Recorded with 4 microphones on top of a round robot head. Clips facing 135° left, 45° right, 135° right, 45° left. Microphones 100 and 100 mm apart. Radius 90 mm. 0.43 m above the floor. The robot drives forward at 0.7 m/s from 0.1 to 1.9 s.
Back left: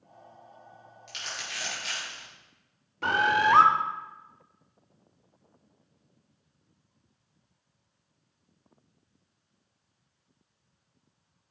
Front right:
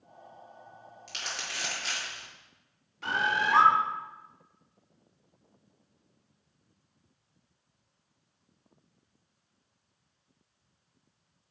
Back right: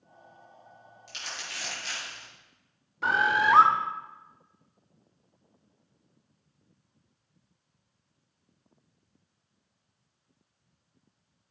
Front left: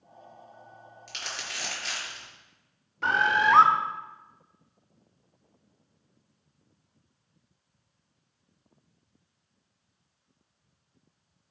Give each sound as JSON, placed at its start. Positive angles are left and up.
{"t": 1.1, "sound": "crumpling", "azimuth_deg": 5, "distance_m": 5.0}
{"t": 3.0, "sound": "a bird", "azimuth_deg": 140, "distance_m": 1.0}